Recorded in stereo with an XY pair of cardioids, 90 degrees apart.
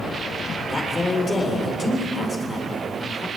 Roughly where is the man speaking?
Ahead left.